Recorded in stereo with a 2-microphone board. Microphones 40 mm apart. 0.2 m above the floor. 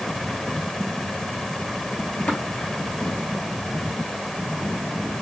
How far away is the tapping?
About 3 m.